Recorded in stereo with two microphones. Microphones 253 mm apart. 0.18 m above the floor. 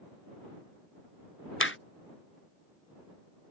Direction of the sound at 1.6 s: 55° left (ahead or behind).